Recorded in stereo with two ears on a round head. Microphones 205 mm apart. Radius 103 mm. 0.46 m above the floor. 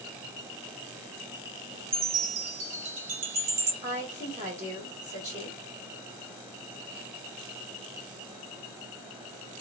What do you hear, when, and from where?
1.9 s a chime: 55° right (ahead or behind), 1.0 m
3.8 s a woman speaking: 30° right (ahead or behind), 1.6 m